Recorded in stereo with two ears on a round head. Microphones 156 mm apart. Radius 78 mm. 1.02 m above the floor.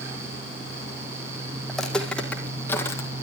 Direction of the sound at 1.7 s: Centre (ahead or behind).